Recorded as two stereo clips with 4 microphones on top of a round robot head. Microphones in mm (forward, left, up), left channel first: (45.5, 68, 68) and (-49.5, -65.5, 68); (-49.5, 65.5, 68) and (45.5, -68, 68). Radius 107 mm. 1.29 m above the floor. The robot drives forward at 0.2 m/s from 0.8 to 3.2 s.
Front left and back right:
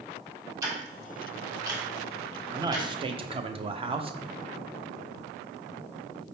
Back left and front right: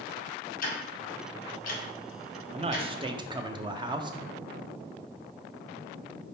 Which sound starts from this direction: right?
A man speaking, at 2.5 s.